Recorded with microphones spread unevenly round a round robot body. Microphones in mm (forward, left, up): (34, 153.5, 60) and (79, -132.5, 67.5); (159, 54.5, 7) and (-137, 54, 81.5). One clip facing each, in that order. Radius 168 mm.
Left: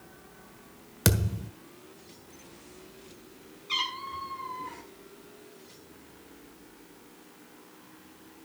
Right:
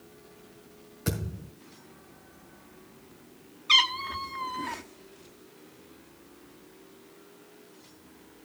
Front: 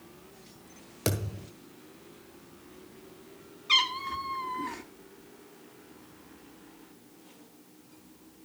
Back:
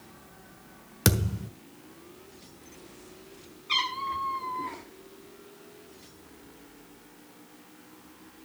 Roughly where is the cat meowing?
Ahead right.